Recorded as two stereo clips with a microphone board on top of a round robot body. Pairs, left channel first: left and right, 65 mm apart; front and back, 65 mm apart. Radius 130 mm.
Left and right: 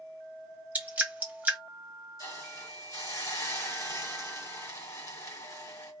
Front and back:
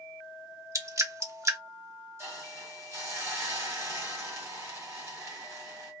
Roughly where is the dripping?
Behind right.